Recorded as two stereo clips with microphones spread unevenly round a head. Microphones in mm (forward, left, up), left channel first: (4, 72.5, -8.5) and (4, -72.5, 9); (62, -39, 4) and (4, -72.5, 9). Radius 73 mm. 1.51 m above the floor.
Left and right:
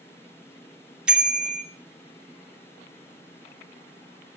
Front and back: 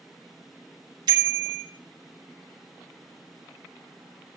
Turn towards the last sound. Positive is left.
turn(degrees=-170)